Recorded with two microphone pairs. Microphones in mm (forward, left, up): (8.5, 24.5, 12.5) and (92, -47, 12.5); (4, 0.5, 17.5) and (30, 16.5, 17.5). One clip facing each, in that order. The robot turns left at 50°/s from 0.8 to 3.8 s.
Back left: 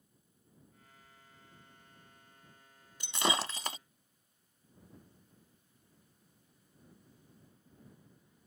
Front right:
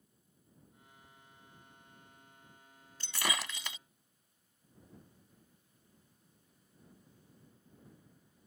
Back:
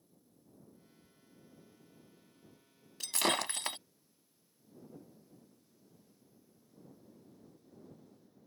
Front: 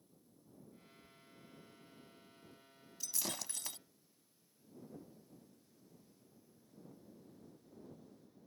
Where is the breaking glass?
145° right; by 3.8 s 175° left.